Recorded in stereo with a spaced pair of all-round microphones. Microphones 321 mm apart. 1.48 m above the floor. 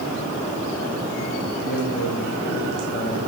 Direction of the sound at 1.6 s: 45° left (ahead or behind).